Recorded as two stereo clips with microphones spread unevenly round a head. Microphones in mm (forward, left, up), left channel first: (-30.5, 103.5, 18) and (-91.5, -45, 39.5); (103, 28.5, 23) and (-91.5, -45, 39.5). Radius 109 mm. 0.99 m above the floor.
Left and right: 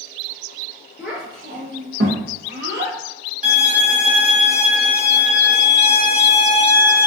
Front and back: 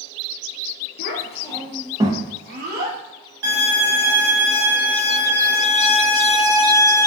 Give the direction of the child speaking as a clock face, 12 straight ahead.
1 o'clock.